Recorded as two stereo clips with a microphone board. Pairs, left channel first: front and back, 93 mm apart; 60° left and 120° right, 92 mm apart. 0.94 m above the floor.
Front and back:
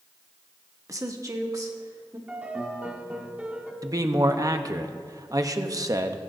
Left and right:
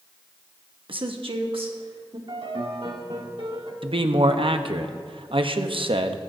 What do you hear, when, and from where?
0.9 s a woman speaking: 130° right, 1.1 m
2.3 s a piano: 105° right, 1.3 m
3.8 s a man speaking: 130° right, 0.8 m